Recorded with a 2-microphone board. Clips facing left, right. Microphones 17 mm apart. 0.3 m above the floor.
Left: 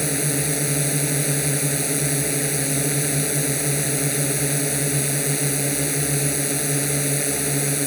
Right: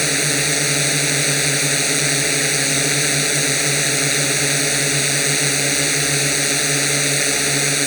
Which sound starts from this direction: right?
A drone, at 0.0 s.